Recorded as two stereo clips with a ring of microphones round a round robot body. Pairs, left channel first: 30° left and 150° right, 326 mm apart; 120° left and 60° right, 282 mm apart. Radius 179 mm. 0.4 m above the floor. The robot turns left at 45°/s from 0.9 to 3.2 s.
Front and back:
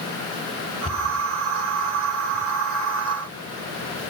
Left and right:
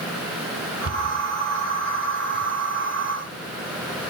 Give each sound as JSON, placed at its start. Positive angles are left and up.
{"t": 0.8, "sound": "a cupboard door", "azimuth_deg": -45, "distance_m": 3.0}